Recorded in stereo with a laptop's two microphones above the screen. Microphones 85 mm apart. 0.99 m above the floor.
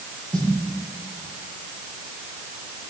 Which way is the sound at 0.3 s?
55° right (ahead or behind).